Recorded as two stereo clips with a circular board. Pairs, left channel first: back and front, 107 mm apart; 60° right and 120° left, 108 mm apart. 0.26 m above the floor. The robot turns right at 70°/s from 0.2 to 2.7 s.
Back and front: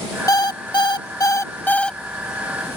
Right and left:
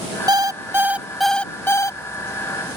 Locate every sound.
0.3 s an alarm clock: 145° left; by 2.0 s 95° right